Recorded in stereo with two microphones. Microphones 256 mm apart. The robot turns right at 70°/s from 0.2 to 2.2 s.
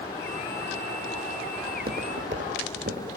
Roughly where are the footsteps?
Right.